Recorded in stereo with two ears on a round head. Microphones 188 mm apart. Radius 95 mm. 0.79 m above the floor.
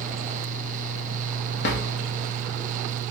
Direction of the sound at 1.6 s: 55° left (ahead or behind).